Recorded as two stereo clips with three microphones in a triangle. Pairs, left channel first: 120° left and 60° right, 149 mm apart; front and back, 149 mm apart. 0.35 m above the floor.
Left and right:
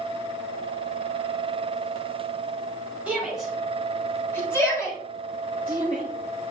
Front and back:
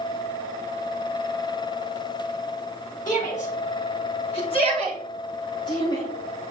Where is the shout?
20° left, 3 m; by 6.0 s 65° left, 5.5 m.